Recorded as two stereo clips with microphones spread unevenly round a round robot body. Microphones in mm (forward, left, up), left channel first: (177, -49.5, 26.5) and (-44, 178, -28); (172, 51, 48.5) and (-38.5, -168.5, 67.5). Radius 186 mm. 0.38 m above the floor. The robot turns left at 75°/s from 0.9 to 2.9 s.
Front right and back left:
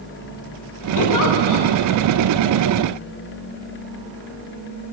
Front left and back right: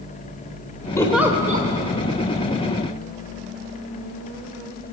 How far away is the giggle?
About 1.7 m.